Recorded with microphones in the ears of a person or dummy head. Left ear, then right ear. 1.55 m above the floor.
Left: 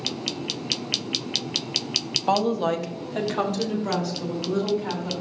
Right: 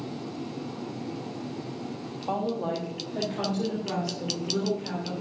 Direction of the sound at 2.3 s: 75° left (ahead or behind).